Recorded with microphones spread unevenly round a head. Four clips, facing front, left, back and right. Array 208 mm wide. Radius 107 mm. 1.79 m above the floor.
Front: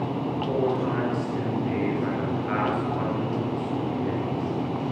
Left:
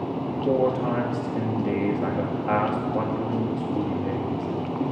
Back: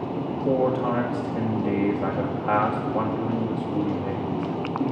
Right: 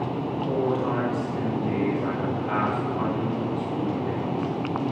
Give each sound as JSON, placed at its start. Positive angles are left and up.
{"t": 0.5, "sound": "a man speaking", "azimuth_deg": 155, "distance_m": 2.5}